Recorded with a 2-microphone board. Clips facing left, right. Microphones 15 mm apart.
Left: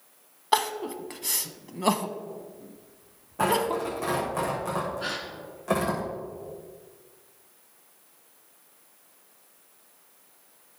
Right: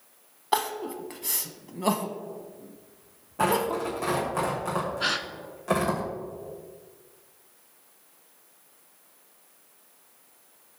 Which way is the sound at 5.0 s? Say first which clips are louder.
Right 5 dB; 35° right (ahead or behind).